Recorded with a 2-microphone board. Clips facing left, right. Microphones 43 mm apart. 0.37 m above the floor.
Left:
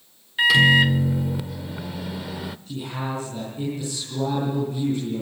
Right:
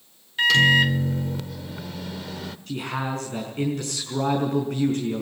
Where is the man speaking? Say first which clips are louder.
Right 3 dB; 65° right (ahead or behind), 4.5 m.